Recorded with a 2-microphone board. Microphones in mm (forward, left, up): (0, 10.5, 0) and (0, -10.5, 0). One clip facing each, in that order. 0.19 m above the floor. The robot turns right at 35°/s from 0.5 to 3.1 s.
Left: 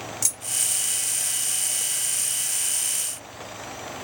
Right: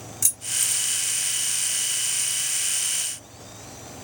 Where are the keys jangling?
15° left (ahead or behind), 2.5 m; by 0.8 s 5° left (ahead or behind), 2.5 m.